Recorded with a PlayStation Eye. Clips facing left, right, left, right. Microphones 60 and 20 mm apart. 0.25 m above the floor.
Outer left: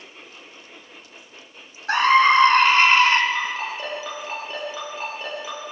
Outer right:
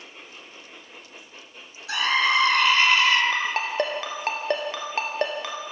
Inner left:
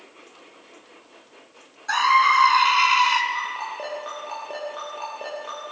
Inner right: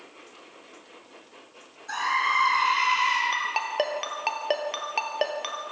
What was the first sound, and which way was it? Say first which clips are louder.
A scream: outer left 7 dB, inner left 7 dB; 40° left (ahead or behind).